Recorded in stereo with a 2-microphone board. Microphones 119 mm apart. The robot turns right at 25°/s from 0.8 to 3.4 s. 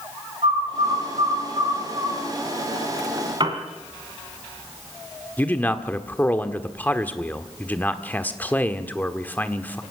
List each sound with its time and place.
0.4 s a bird: 60° right (ahead or behind), 8 m; by 2.1 s 30° right (ahead or behind), 8 m
3.4 s a piano: 40° right (ahead or behind), 2.5 m
5.4 s a man speaking: 15° left (ahead or behind), 1.3 m